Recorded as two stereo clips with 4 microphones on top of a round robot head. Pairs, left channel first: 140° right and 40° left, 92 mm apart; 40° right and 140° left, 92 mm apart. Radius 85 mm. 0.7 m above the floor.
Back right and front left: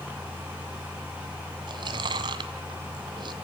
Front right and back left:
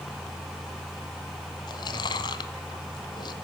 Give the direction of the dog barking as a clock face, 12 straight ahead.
I don't hear a dog barking.